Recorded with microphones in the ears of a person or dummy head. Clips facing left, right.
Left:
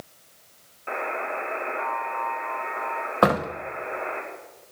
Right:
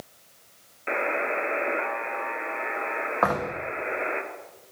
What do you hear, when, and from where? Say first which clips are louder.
0.9 s a buzzer: right 3 dB; 25° right (ahead or behind), 1.1 m
3.2 s a door slam: left 5 dB; 40° left (ahead or behind), 1.0 m